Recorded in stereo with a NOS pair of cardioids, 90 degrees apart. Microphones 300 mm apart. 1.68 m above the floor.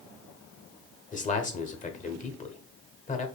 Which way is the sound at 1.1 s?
25° left.